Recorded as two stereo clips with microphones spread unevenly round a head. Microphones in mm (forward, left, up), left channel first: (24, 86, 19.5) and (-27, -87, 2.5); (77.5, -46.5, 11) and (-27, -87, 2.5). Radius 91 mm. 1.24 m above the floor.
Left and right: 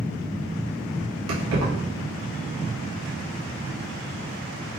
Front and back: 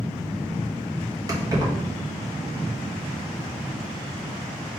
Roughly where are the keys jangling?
Right.